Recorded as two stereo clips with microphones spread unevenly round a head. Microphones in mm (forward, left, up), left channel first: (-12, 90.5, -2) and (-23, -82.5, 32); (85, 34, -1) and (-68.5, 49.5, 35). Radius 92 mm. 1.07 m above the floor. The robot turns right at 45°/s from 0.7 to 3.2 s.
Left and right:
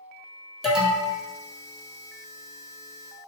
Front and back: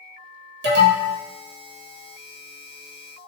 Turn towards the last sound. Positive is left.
turn(degrees=-75)